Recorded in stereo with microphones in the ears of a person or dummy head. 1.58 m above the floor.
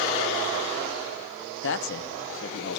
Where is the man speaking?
65° left (ahead or behind), 1.0 m.